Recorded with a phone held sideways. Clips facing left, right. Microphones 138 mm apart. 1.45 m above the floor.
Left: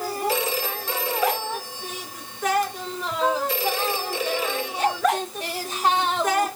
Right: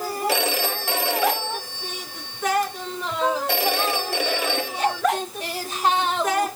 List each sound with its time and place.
0.3 s a phone ringing: 65° right (ahead or behind), 2.0 m